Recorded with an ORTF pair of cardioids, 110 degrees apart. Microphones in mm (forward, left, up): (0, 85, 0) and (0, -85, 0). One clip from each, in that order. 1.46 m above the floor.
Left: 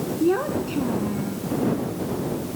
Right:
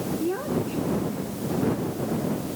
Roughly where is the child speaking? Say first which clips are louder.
Left 7 dB; ahead left.